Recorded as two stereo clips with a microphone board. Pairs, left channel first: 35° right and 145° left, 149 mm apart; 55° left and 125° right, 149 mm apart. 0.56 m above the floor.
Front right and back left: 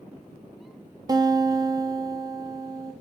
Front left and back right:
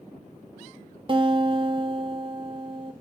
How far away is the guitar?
About 0.5 m.